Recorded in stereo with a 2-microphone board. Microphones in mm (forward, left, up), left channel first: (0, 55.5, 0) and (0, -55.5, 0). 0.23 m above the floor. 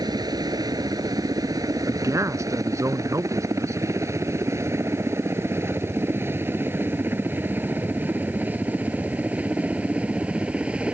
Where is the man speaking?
30° right (ahead or behind).